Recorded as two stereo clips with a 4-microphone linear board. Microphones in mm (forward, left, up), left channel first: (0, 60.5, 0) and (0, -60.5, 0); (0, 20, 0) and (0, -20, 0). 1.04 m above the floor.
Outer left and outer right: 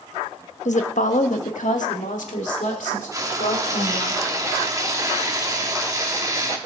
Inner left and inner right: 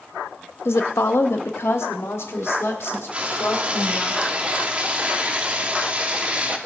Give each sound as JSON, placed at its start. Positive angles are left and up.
{"t": 0.7, "sound": "a woman speaking", "side_deg": 70, "distance_m": 0.8}
{"t": 3.1, "sound": "frying", "side_deg": -25, "distance_m": 1.2}